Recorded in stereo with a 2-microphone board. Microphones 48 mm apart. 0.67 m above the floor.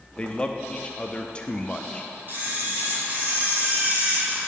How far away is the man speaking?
About 0.6 m.